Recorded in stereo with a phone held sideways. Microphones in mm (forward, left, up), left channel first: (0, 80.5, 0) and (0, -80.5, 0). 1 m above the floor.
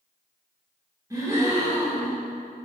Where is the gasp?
20° right (ahead or behind), 2.5 m.